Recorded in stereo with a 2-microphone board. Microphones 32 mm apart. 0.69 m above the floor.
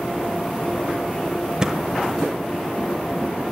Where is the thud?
20° right (ahead or behind), 1.1 m.